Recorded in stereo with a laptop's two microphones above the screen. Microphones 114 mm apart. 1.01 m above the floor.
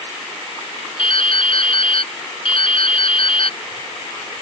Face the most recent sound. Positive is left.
turn(degrees=50)  # may be behind; listen again after turning